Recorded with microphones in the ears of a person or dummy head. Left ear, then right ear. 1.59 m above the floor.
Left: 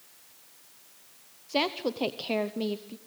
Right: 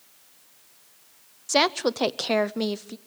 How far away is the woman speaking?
About 0.7 m.